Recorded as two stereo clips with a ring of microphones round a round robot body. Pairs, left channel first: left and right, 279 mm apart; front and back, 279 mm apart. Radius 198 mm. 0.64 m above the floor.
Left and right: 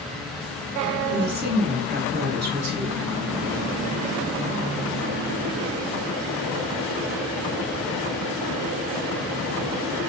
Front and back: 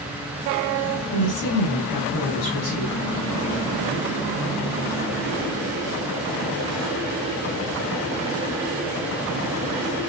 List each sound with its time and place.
1.1 s a woman speaking: 40° right, 4 m